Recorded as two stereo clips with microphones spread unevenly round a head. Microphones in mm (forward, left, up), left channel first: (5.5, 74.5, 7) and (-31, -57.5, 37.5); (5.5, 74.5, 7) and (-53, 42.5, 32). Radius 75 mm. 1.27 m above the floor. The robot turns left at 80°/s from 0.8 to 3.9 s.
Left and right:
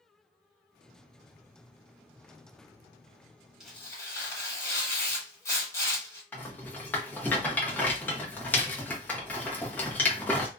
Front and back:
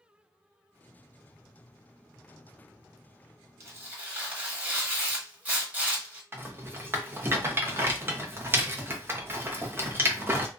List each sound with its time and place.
3.6 s tearing paper: 170° left, 1.4 m; by 6.2 s 145° left, 1.4 m
6.3 s a rattle: 155° left, 0.8 m